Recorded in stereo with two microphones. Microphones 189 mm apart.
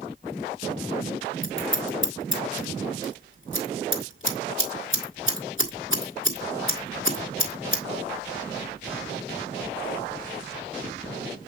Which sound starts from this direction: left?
Scissors, at 1.4 s.